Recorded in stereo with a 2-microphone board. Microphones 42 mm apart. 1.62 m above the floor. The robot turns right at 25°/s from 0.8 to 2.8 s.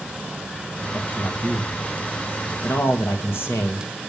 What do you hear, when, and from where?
0.9 s a man speaking: 55° left, 1.9 m; by 4.1 s 105° left, 1.9 m